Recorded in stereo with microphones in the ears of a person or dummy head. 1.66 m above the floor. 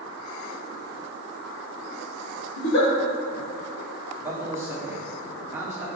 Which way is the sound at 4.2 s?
5° right (ahead or behind).